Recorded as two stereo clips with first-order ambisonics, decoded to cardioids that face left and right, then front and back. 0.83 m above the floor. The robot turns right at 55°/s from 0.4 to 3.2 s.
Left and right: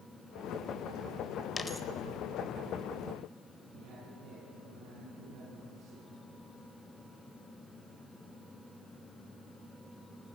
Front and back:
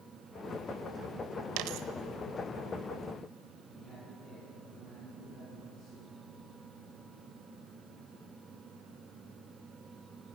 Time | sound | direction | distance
1.6 | a dropped coin | 165° left | 0.9 m
3.7 | a man speaking | 75° right | 9 m